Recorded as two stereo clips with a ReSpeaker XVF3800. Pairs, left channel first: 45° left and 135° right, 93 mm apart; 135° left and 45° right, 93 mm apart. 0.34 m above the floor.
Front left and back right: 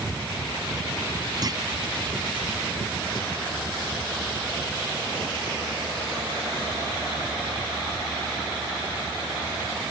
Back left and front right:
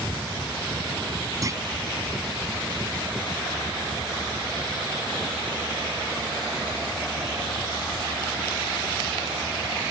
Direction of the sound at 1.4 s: 95° right.